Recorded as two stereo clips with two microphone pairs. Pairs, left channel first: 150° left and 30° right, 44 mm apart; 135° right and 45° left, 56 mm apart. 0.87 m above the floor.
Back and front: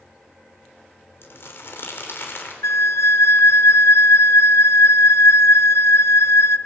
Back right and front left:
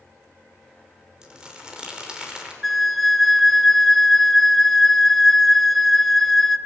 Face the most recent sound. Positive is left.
turn(degrees=140)